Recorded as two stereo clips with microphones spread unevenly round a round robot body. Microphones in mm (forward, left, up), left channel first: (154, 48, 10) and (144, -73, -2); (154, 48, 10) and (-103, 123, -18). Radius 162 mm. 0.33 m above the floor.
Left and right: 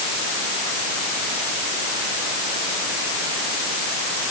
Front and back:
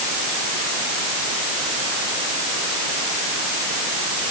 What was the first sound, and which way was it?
Only background noise.